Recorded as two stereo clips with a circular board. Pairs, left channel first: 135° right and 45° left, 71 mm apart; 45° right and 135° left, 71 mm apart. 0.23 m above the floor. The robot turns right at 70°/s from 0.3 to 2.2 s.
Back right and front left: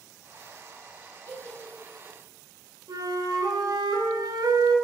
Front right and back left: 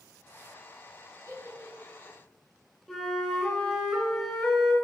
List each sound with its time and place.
1.3 s a giggle: 165° left, 2 m; by 2.1 s 130° right, 2 m
2.9 s a flute: 45° left, 1.7 m